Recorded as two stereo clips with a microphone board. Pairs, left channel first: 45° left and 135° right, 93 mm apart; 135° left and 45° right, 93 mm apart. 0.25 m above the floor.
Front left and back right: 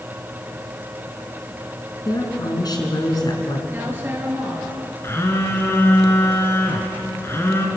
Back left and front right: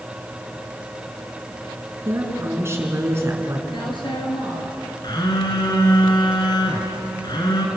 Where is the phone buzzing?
105° left, 3 m.